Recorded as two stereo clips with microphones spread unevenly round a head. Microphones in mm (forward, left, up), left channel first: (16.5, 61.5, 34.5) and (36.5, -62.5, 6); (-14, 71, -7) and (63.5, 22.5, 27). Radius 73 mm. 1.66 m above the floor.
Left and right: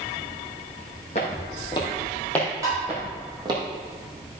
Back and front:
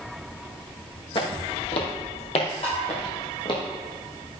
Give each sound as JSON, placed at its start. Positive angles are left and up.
{"t": 1.1, "sound": "footsteps", "azimuth_deg": 120, "distance_m": 3.0}
{"t": 2.6, "sound": "tapping", "azimuth_deg": -150, "distance_m": 5.0}